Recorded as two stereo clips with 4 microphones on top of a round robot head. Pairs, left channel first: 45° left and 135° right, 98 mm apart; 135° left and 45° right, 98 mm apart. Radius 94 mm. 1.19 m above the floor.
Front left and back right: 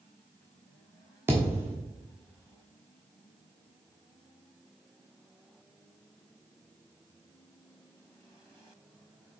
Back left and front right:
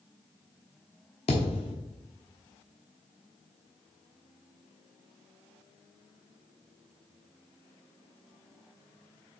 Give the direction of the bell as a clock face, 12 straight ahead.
I don't hear a bell.